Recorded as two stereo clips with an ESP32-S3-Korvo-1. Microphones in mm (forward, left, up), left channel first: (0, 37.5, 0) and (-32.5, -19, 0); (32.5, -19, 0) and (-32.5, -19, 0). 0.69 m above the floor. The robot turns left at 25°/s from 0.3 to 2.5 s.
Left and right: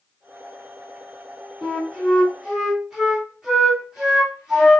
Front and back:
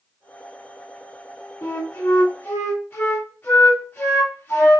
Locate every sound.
1.6 s a flute: 20° right, 1.6 m; by 4.8 s 40° right, 1.6 m